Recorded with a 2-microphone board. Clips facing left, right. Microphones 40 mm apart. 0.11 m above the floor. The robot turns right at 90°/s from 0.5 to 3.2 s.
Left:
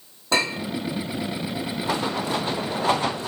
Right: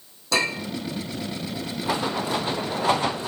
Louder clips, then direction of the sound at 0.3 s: Left 1 dB; 30° left (ahead or behind).